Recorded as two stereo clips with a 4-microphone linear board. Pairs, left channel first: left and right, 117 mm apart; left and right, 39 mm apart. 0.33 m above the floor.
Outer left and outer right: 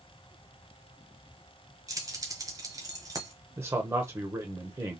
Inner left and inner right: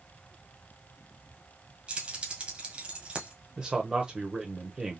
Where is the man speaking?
25° right (ahead or behind), 1.0 m.